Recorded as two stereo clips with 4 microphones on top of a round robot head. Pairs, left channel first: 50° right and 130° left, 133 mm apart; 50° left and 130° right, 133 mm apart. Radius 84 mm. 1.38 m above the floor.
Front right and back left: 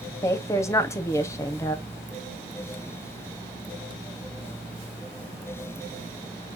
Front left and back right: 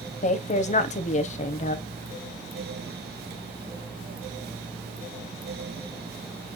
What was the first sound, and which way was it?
A woman speaking, 15° left.